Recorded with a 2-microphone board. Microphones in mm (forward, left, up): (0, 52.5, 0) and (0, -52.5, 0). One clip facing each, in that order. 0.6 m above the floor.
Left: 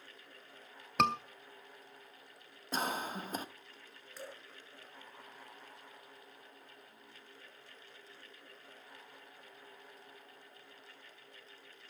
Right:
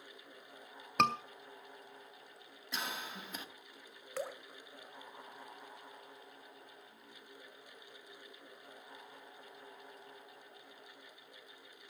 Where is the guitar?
I don't hear a guitar.